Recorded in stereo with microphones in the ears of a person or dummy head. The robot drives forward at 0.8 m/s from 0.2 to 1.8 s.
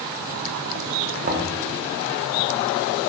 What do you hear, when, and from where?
1.2 s knocking: 40° right (ahead or behind), 1.0 m; by 1.5 s 35° right (ahead or behind), 1.1 m